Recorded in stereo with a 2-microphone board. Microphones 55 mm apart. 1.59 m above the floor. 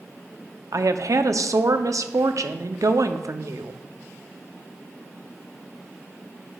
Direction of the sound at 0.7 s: 70° right (ahead or behind).